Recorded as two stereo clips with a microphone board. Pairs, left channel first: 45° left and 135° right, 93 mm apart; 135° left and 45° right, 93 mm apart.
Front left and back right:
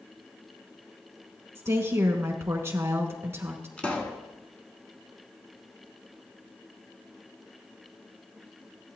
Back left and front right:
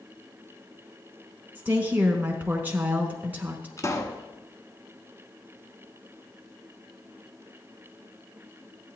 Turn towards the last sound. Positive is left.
turn(degrees=115)